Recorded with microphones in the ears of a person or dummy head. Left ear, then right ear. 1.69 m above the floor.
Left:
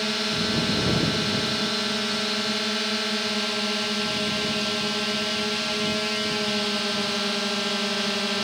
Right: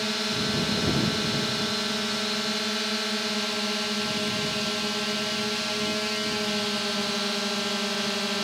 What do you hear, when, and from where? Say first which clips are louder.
0.0 s a drone: left 2 dB; centre (ahead or behind)